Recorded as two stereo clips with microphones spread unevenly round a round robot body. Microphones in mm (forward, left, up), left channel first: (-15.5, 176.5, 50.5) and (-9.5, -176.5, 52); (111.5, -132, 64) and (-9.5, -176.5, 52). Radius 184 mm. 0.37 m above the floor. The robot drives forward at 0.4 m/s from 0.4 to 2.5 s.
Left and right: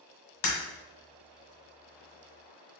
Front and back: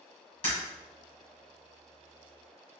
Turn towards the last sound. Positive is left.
turn(degrees=105)